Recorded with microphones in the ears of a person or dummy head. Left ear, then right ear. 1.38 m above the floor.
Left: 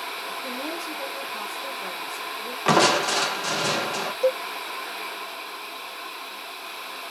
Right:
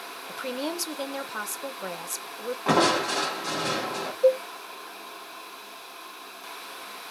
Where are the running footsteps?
I don't hear running footsteps.